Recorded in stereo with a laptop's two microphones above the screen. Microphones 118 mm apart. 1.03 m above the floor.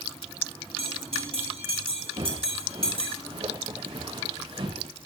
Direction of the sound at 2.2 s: 60° right (ahead or behind).